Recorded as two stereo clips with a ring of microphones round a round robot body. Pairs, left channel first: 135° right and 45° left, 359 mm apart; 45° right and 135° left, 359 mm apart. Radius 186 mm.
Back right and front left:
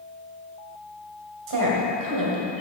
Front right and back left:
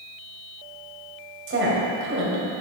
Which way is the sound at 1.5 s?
80° left.